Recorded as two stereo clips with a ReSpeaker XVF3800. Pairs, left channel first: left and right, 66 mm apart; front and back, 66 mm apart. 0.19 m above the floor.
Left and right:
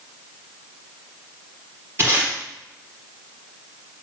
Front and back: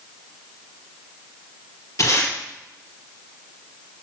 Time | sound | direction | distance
2.0 | tape being pulled | 40° right | 4 m